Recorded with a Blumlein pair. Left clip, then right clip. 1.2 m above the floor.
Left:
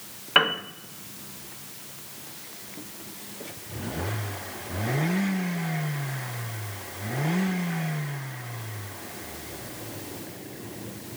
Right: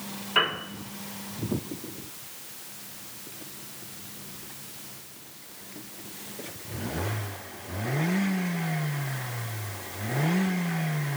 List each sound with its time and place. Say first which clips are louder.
0.3 s a piano: left 3 dB; 30° left, 1.0 m